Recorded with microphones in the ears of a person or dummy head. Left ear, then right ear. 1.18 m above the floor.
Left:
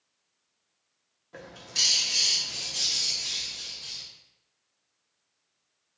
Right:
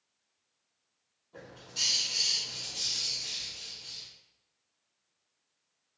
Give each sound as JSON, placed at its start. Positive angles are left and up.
{"t": 1.3, "sound": "a bird", "side_deg": 50, "distance_m": 0.6}